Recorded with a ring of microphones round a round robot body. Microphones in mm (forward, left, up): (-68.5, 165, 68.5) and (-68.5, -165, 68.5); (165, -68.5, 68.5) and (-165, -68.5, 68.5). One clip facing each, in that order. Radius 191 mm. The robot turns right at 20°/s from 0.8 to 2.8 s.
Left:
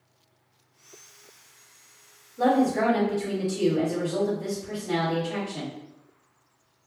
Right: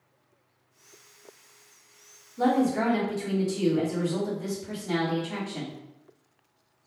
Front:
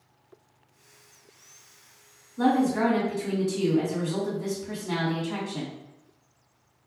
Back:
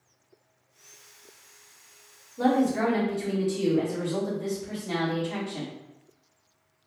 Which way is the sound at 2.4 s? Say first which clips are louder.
Left 2 dB, front 1 dB; 40° right.